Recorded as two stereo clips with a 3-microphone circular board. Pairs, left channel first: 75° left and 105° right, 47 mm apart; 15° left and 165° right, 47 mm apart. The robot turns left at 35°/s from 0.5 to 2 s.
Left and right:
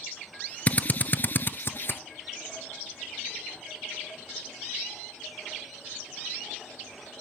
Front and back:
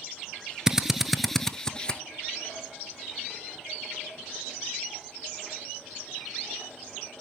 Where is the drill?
120° left, 0.6 m; by 2.0 s 75° left, 0.6 m.